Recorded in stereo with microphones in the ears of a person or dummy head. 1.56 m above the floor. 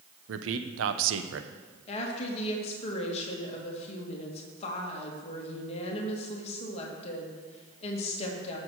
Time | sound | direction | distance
0.3 | a man speaking | 80° right | 1.0 m
1.9 | a woman speaking | 40° left (ahead or behind) | 2 m